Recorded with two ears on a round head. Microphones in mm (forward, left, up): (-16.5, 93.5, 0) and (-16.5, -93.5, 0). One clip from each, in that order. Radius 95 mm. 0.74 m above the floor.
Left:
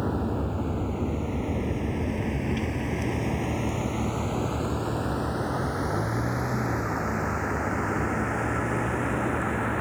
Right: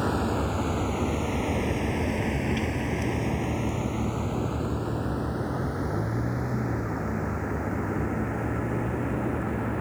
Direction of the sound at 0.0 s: 70° right (ahead or behind).